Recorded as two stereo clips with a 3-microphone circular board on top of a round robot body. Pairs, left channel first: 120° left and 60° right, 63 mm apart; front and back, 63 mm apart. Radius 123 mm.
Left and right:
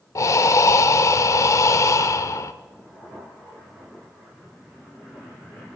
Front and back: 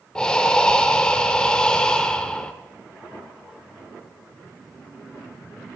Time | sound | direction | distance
0.1 | breathing | 80° left | 0.5 m